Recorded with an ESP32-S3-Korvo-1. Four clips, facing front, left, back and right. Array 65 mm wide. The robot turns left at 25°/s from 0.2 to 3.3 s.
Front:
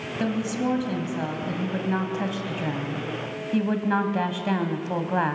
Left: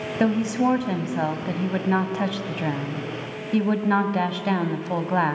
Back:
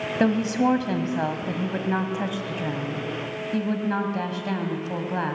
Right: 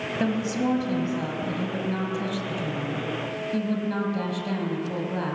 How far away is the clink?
I don't hear a clink.